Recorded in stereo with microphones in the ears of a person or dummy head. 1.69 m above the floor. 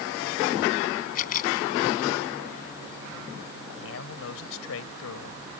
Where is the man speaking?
75° left (ahead or behind).